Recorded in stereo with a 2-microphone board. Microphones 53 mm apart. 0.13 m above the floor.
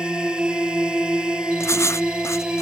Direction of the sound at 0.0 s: 15° right (ahead or behind).